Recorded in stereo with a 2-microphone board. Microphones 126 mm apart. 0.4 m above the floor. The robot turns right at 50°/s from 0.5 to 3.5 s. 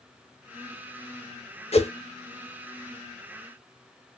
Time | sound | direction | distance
1.7 | a whoosh | 55° left (ahead or behind) | 0.9 m